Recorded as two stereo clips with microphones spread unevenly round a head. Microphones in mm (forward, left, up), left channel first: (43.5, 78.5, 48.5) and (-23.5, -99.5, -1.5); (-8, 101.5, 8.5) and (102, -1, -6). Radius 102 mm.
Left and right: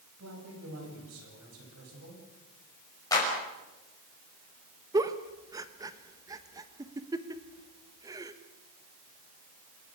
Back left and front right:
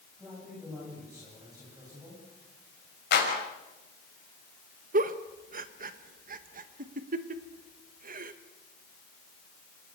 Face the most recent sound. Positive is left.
turn(degrees=-30)